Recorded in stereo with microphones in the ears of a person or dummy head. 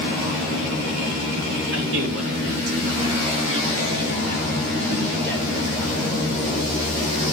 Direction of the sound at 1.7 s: 75° right (ahead or behind).